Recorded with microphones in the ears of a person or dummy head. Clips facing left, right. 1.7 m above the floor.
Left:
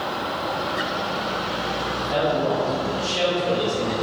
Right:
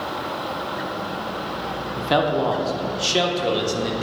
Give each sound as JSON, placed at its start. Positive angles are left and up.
{"t": 2.0, "sound": "a man speaking", "side_deg": -80, "distance_m": 0.6}